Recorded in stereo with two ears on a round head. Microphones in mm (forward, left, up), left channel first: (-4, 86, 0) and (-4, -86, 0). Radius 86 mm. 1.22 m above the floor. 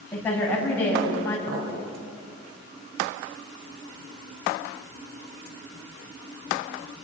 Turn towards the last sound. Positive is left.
turn(degrees=-50)  # may be behind; listen again after turning